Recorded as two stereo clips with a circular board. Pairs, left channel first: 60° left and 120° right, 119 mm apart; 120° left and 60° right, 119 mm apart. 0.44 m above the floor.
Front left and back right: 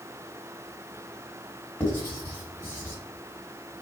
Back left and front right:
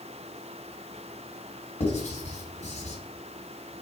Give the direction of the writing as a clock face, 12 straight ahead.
8 o'clock.